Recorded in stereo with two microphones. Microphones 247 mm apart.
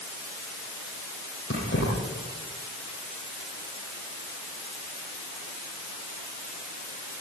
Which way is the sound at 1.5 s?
50° left (ahead or behind).